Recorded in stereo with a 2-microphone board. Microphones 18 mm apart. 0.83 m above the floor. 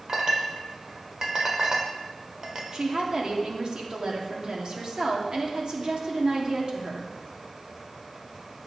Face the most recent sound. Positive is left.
turn(degrees=-55)  # may be behind; listen again after turning